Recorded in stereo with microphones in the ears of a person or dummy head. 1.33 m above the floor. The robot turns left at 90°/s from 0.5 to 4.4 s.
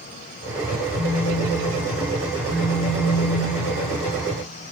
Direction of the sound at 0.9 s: 80° right.